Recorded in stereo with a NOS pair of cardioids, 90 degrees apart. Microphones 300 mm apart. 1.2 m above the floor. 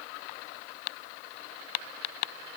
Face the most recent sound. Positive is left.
No sound to turn to.